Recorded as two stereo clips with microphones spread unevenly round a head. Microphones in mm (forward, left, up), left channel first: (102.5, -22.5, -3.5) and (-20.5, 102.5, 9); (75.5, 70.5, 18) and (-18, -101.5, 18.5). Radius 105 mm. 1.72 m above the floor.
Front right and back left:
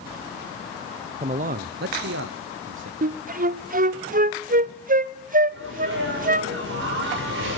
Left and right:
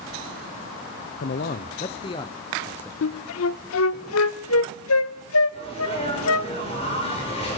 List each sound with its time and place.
1.2 s a man speaking: 85° left, 0.6 m; by 2.9 s 145° left, 1.2 m
3.0 s a flute: 90° left, 0.5 m
5.5 s a sneeze: 125° left, 6 m